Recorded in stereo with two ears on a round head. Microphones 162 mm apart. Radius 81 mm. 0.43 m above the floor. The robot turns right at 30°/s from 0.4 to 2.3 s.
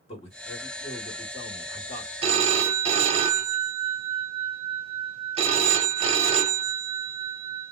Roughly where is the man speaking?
Ahead left.